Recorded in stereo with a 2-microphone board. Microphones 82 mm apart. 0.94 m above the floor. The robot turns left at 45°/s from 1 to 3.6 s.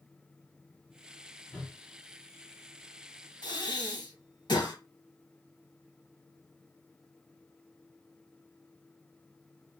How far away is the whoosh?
About 0.7 m.